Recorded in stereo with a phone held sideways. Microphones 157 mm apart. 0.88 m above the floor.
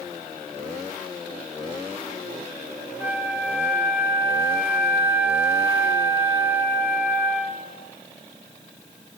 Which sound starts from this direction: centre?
A flute, at 3.0 s.